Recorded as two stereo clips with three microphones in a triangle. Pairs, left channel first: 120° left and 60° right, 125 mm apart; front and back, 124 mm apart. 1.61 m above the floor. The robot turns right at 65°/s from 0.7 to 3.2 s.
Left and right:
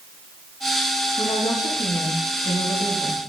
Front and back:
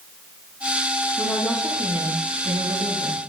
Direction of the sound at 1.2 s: 65° left.